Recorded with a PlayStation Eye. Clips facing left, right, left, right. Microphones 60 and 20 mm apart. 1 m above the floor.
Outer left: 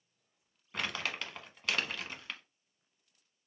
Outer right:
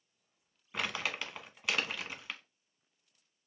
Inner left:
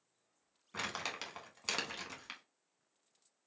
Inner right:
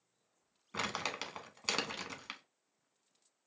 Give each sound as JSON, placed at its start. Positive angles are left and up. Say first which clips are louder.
{"t": 0.7, "sound": "crumpling", "louder": "outer right 1 dB, inner right 2 dB", "side_deg": 0, "distance_m": 1.0}